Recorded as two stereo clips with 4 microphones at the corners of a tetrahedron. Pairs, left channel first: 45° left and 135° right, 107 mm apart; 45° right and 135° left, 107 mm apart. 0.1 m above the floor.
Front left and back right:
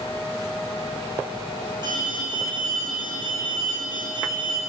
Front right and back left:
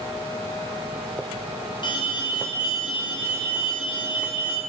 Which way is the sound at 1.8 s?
90° right.